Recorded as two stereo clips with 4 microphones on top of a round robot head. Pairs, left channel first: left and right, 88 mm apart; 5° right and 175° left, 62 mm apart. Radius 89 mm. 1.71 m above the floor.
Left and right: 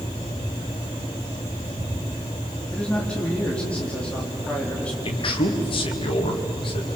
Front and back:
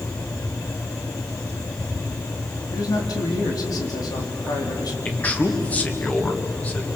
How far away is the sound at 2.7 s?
About 4 m.